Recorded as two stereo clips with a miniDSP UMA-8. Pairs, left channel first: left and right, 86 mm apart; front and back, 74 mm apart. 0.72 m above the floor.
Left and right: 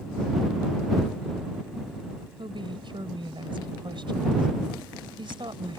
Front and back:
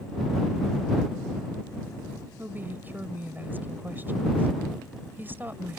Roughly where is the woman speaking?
Behind right.